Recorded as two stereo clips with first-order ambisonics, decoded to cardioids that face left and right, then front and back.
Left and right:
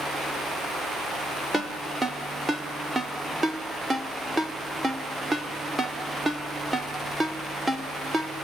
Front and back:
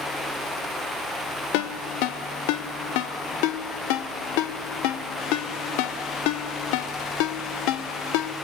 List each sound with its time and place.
1.5 s a ringtone: 10° right, 1.2 m